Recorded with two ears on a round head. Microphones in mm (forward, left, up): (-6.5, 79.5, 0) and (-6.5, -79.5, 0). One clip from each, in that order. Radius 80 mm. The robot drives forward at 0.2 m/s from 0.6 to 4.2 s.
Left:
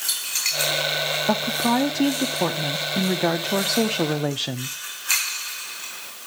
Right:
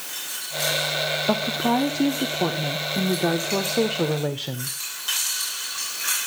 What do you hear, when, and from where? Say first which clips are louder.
1.3 s a woman speaking: left 1 dB; 35° left (ahead or behind), 0.9 m; by 4.8 s 60° left (ahead or behind), 0.6 m